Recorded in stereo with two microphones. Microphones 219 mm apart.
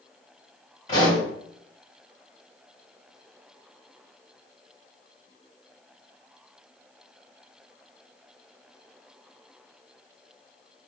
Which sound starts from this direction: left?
A pop, at 0.9 s.